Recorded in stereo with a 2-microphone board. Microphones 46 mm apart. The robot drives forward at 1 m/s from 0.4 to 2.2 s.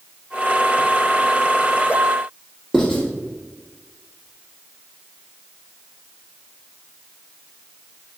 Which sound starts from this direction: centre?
Writing, at 2.7 s.